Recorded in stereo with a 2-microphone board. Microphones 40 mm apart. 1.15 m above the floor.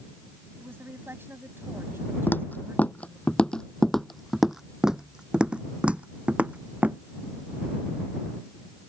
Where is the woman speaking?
70° right (ahead or behind).